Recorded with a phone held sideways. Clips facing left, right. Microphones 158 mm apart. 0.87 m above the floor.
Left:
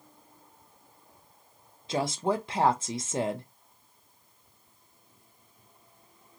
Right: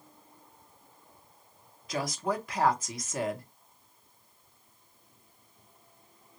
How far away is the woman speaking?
About 0.6 m.